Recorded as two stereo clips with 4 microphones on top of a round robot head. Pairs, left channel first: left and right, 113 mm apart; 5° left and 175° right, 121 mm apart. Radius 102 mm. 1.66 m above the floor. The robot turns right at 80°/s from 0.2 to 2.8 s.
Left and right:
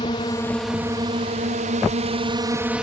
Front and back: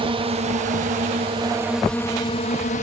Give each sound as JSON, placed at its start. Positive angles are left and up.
{"t": 0.0, "sound": "a drone", "azimuth_deg": 145}